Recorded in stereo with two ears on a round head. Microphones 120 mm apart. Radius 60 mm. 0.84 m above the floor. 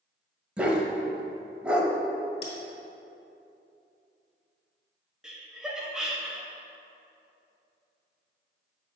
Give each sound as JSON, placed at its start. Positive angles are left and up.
{"t": 0.6, "sound": "a dog barking", "side_deg": -10, "distance_m": 0.8}
{"t": 2.4, "sound": "a bell", "side_deg": 45, "distance_m": 2.0}
{"t": 5.2, "sound": "laughter", "side_deg": -5, "distance_m": 0.8}